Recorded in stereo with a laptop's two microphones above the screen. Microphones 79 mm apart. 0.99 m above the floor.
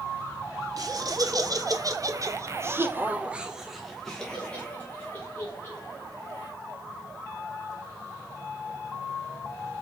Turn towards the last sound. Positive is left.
turn(degrees=30)  # may be behind; listen again after turning